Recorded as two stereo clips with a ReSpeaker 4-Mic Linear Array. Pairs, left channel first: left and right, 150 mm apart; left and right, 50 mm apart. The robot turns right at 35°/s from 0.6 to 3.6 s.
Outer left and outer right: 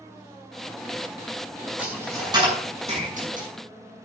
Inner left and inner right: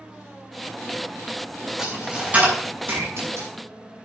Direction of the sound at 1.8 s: 10° right (ahead or behind).